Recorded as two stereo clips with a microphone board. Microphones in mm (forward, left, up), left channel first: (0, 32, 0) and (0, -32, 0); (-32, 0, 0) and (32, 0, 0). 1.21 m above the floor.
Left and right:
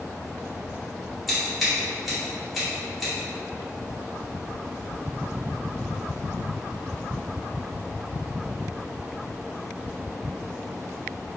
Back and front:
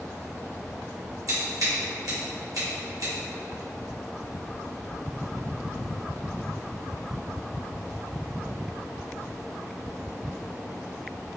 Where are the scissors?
Straight ahead, 1.3 m.